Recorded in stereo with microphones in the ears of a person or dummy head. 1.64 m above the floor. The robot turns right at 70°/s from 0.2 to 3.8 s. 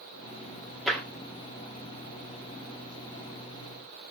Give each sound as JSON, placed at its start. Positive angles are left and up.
{"t": 0.9, "sound": "tapping", "side_deg": 0, "distance_m": 1.0}